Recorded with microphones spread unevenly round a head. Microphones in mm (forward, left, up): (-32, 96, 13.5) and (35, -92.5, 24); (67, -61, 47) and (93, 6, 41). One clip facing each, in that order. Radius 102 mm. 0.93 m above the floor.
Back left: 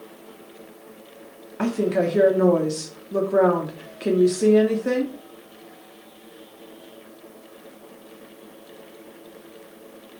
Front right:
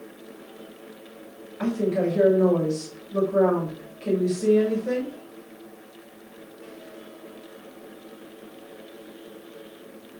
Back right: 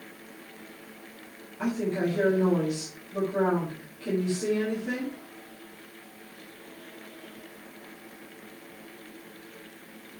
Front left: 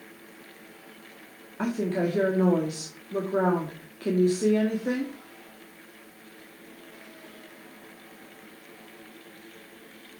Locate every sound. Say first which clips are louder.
1.6 s a woman speaking: back left 2 dB, front left 1 dB; 105° left, 1.9 m